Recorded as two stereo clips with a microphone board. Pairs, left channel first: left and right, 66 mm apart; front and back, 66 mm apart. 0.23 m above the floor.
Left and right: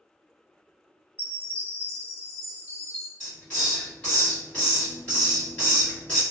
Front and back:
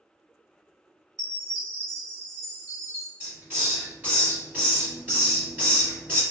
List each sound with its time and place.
1.2 s a chime: 160° left, 2.0 m
3.2 s a hiss: 145° left, 1.7 m